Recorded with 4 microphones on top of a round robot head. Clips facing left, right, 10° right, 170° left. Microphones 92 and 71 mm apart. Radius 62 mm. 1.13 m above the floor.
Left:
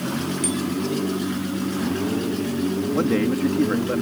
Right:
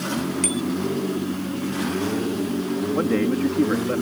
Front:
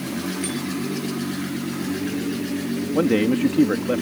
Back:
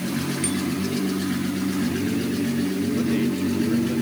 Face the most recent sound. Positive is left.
turn(degrees=0)